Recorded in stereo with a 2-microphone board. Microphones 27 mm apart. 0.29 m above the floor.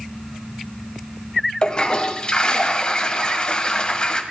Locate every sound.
1.6 s a toilet flushing: 35° left (ahead or behind), 1.4 m